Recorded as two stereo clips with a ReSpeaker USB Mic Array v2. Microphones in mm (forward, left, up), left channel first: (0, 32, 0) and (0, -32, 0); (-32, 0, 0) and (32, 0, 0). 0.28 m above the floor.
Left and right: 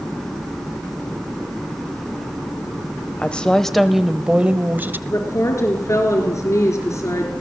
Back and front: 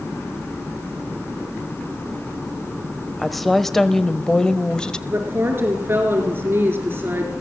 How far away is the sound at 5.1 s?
About 4 m.